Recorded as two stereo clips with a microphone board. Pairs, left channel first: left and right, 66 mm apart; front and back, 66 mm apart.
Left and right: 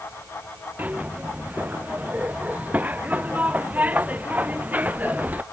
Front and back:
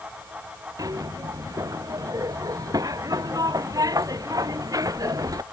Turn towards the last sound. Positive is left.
turn(degrees=-155)